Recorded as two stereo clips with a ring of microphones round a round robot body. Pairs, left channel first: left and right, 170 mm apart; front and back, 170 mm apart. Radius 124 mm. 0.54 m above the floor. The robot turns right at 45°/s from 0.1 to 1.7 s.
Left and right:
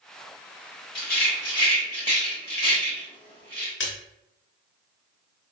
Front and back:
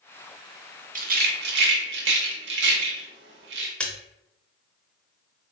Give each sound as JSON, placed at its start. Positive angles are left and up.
{"t": 0.9, "sound": "a rattle", "azimuth_deg": 135, "distance_m": 0.7}
{"t": 3.8, "sound": "a splash", "azimuth_deg": 85, "distance_m": 0.7}